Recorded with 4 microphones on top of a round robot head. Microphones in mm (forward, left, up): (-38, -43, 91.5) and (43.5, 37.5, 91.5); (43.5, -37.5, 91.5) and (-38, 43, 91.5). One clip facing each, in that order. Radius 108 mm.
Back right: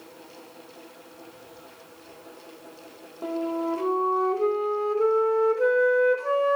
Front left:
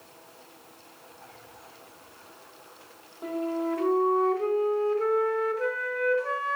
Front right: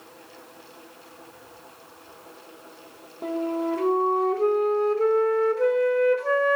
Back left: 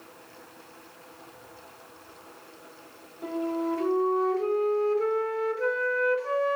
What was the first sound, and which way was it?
A flute, 80° right.